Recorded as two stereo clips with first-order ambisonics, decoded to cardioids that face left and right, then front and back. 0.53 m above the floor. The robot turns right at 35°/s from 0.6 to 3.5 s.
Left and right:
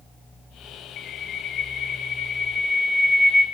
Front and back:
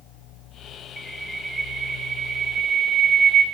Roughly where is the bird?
Left.